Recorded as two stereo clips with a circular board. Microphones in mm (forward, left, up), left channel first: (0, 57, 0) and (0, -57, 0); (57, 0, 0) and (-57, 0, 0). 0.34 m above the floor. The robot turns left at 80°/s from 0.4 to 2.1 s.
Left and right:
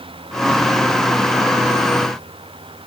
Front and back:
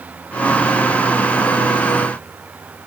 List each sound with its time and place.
Only background noise.